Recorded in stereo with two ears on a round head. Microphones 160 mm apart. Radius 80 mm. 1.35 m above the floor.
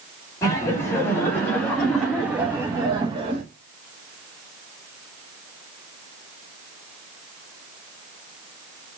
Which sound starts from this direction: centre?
Laughter, at 0.4 s.